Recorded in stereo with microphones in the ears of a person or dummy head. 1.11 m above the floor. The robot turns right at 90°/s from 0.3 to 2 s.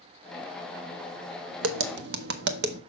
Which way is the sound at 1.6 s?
100° right.